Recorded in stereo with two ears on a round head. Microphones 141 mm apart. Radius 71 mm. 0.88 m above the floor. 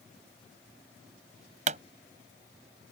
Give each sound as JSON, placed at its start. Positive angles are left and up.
{"t": 1.7, "sound": "a pop", "side_deg": -45}